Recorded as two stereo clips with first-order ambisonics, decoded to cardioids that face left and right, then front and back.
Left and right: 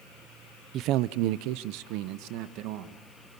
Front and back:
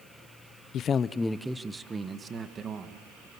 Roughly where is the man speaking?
Ahead right.